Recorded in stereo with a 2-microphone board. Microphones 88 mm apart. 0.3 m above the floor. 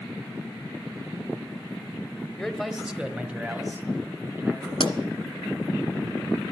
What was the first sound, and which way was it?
A man speaking, 5° left (ahead or behind).